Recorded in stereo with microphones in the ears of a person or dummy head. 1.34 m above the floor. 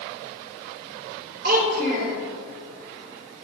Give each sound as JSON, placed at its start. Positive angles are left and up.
{"t": 1.4, "sound": "a child speaking", "side_deg": -55, "distance_m": 3.0}